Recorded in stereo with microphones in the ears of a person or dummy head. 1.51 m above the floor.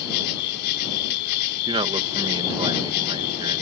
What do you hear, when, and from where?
0.0 s an insect: 55° left (ahead or behind)
1.7 s a man speaking: 30° right (ahead or behind)